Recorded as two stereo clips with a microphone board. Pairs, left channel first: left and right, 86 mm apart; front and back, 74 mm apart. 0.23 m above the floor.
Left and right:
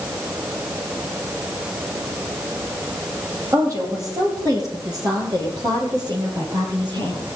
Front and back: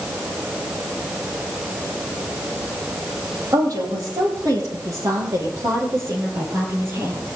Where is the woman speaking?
140° right, 7.5 m; by 7.4 s 120° right, 5.5 m.